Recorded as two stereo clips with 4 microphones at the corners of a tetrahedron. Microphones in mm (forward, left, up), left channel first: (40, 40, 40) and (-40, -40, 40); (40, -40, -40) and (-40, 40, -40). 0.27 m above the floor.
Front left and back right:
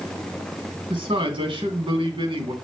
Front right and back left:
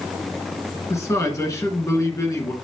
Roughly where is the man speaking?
Right.